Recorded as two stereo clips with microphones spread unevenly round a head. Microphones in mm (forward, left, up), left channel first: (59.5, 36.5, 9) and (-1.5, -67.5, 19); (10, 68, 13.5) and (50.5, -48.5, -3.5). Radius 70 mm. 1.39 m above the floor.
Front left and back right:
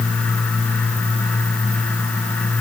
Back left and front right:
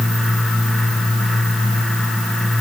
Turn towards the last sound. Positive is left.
No sound to turn to.